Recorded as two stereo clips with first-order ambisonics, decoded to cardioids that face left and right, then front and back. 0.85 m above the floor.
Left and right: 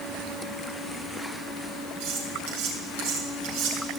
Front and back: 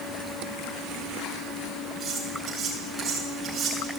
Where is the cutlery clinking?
100° right, 7 m.